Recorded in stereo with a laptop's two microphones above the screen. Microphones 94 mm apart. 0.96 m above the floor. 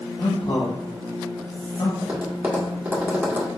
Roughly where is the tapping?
Centre.